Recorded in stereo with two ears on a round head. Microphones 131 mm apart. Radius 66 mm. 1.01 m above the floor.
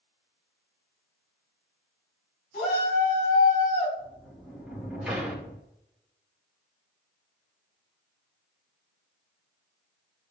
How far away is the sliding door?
About 2.5 m.